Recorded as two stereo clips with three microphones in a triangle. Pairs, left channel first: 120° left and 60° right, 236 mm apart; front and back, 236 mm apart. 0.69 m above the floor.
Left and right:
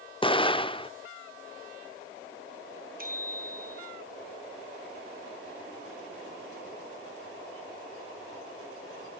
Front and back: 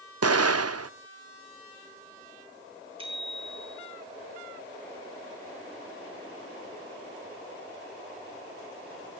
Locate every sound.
0.2 s an explosion: 175° right, 0.5 m
3.0 s a bicycle bell: 110° right, 5 m